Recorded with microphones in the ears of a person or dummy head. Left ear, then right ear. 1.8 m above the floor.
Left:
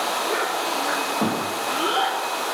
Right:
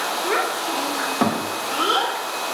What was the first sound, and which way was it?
A child speaking, 30° right (ahead or behind).